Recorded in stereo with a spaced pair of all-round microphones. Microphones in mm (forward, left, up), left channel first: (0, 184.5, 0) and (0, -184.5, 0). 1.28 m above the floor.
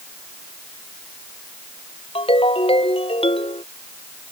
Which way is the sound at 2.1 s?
15° left (ahead or behind).